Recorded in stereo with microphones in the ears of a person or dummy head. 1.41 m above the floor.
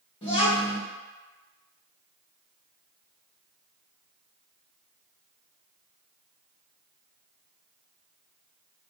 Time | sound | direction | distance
0.2 | a child speaking | 30° left (ahead or behind) | 0.9 m